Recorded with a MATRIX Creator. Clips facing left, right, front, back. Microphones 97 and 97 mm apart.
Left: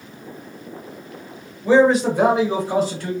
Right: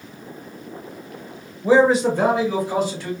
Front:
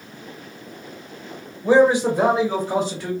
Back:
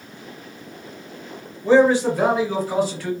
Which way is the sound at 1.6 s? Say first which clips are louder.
Left 1 dB, even; 60° right.